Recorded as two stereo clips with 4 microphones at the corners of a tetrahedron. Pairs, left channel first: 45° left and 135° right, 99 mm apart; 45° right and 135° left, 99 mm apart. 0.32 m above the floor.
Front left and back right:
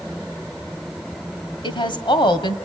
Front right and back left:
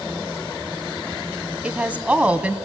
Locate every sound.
1.6 s a woman speaking: 60° left, 1.9 m